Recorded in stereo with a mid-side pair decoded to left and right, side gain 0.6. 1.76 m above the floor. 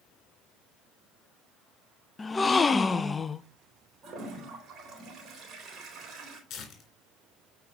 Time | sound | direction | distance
2.2 | a gasp | 20° left | 0.5 m
4.0 | a toilet flushing | 40° right | 4 m
6.5 | tearing paper | 50° left | 3.5 m